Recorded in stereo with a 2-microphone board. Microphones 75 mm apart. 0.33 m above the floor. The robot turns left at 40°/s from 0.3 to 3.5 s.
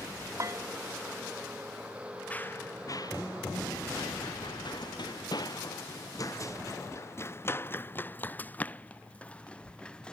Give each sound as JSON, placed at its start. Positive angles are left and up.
{"t": 0.4, "sound": "a bell", "side_deg": -45}
{"t": 2.3, "sound": "running footsteps", "side_deg": 15}